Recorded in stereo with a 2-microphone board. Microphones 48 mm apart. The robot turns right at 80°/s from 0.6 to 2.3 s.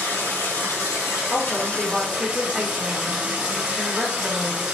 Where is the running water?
60° left, 1.7 m; by 4.8 s 165° right, 1.7 m.